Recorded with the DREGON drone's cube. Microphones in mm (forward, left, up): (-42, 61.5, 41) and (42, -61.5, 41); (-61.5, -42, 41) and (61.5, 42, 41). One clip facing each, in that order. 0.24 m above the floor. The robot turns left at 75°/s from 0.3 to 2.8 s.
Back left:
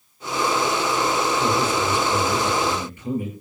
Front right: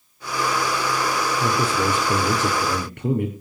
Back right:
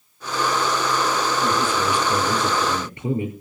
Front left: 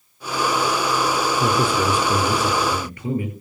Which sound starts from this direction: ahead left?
A man speaking, at 1.4 s.